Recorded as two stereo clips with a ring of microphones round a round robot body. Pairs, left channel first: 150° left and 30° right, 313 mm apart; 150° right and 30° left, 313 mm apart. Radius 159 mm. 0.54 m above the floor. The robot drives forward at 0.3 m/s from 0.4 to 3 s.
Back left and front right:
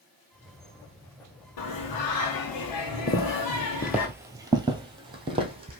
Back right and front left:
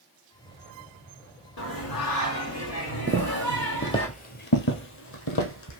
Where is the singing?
165° left, 1.7 m; by 4.1 s 170° left, 2 m.